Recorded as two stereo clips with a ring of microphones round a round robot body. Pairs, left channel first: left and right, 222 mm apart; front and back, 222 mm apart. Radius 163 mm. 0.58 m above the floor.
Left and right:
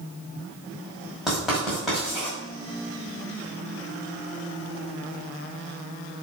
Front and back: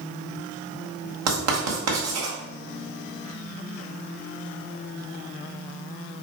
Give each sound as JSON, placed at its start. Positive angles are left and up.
{"t": 1.3, "sound": "writing", "azimuth_deg": 180, "distance_m": 1.9}